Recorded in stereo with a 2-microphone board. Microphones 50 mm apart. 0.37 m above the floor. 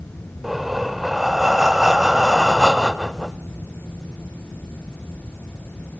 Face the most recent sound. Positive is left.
turn(degrees=-5)  # may be behind; listen again after turning